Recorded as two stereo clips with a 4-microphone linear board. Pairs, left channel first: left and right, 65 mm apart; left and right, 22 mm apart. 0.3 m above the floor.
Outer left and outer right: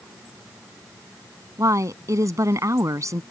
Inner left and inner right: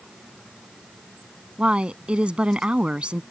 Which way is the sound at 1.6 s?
55° right (ahead or behind).